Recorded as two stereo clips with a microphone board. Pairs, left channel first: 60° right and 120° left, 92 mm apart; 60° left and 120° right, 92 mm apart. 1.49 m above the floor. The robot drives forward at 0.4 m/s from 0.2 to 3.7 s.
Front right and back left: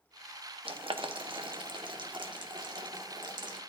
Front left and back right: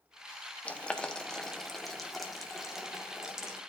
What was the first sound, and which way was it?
Boiling, 135° left.